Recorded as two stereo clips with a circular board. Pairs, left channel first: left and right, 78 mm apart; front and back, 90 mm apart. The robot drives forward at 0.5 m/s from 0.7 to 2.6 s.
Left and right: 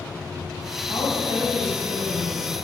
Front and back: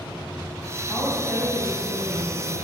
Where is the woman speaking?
90° left, 3 m; by 2.6 s 110° left, 3 m.